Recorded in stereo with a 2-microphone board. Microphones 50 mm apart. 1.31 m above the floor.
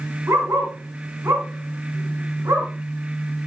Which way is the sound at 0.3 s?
75° right (ahead or behind).